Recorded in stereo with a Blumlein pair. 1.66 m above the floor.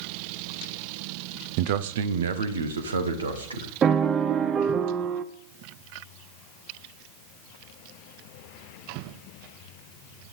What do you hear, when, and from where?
1.6 s a man speaking: 45° right, 1.0 m; by 3.7 s 80° right, 3 m
3.8 s a piano: 25° right, 0.9 m